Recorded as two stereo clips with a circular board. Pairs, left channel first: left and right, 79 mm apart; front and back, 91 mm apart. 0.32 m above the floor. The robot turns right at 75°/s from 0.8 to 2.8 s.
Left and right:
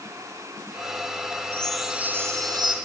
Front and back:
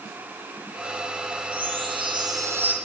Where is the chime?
160° left, 3 m; by 2.7 s 105° right, 3 m.